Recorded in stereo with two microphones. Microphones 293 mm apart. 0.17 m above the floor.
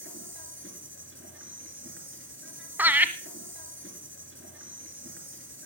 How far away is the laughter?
About 1.1 m.